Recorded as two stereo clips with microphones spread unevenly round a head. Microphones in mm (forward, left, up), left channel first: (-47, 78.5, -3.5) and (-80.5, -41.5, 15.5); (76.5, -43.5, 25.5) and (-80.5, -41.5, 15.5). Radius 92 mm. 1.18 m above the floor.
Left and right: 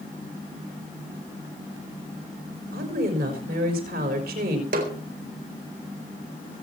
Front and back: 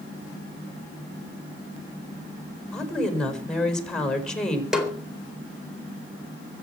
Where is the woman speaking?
85° right, 5 m.